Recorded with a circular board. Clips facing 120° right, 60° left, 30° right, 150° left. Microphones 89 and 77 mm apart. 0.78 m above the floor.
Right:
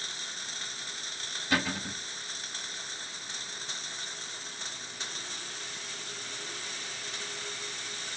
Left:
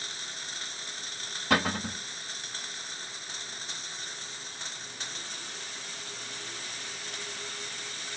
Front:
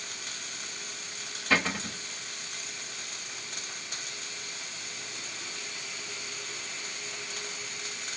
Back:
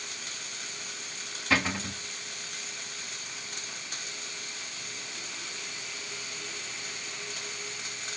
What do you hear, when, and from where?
1.5 s a cupboard door: 60° left, 3 m